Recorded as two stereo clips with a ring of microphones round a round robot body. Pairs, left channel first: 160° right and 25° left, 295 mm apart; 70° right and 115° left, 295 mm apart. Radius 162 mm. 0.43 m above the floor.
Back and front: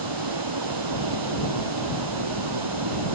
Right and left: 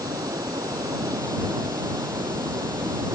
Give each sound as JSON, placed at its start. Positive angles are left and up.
{"t": 0.0, "sound": "running water", "azimuth_deg": 35}